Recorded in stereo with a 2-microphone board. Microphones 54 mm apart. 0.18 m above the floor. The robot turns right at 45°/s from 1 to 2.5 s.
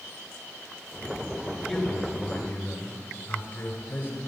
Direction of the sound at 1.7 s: 5° left.